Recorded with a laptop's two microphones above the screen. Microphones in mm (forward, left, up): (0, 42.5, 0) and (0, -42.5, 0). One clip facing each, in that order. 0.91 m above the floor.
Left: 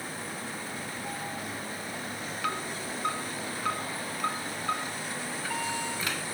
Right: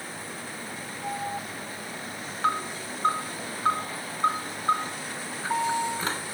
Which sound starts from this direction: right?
An alarm, at 1.0 s.